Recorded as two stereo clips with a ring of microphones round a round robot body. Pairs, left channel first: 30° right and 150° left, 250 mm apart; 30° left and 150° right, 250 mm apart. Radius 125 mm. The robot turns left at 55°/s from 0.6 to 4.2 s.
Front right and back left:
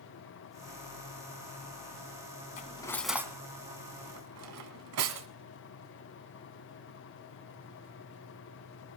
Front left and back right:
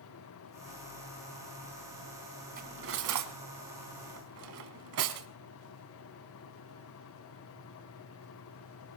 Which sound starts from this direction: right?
Cutlery clinking, at 2.6 s.